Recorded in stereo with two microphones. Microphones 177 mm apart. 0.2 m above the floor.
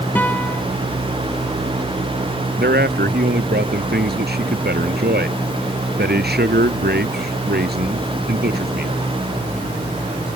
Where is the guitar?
10° left (ahead or behind).